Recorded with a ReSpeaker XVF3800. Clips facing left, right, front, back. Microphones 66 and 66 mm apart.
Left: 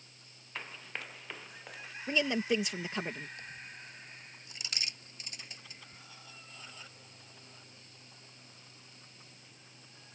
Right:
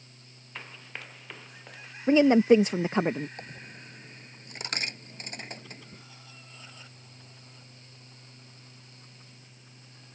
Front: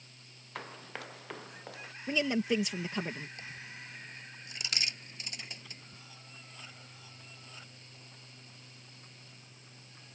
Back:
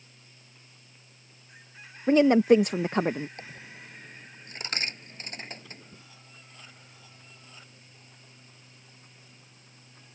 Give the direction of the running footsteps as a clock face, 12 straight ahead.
12 o'clock.